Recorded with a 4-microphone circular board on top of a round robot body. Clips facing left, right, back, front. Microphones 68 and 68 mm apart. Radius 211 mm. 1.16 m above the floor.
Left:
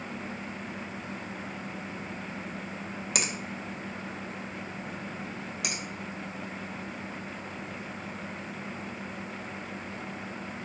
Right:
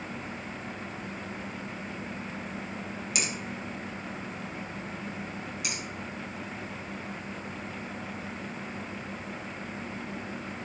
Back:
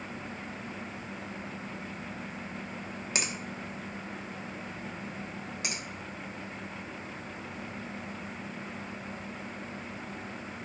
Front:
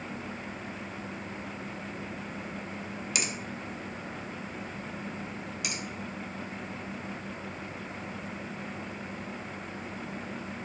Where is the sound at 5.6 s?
125° left, 1.9 m.